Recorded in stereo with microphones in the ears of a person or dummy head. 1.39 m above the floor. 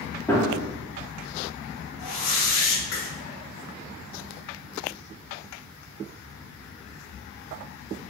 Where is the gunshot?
15° left (ahead or behind), 0.9 m.